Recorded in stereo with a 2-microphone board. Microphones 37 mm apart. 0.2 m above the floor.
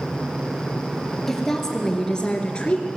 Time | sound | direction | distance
1.3 | a woman speaking | 10° left (ahead or behind) | 3.5 m